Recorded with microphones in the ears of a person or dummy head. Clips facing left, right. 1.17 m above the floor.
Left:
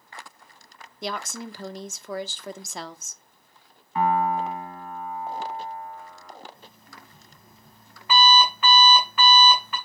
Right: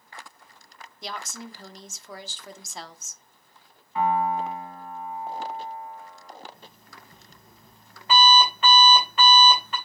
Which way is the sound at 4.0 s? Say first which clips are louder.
Left 1 dB; 45° left (ahead or behind).